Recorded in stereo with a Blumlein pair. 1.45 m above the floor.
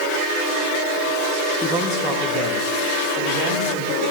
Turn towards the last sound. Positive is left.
turn(degrees=-45)